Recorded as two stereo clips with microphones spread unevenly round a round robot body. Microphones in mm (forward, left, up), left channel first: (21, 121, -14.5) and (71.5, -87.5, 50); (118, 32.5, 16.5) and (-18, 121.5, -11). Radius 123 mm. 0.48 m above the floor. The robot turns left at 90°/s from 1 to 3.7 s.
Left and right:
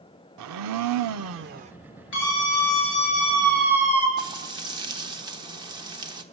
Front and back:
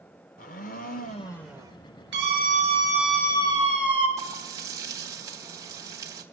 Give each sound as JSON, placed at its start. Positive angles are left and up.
{"t": 0.4, "sound": "a blender", "azimuth_deg": -85, "distance_m": 0.5}
{"t": 2.1, "sound": "a scream", "azimuth_deg": 145, "distance_m": 6.5}
{"t": 4.2, "sound": "frying", "azimuth_deg": -160, "distance_m": 1.1}